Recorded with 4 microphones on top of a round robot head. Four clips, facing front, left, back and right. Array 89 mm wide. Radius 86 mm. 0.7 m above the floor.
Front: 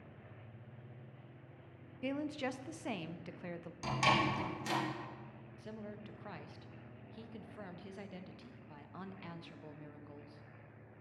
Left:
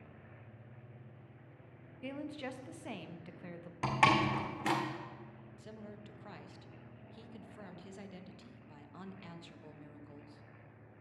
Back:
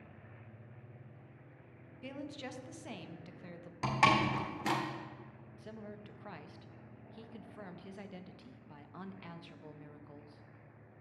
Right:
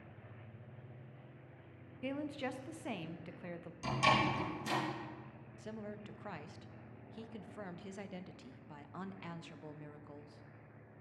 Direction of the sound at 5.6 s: 95° right.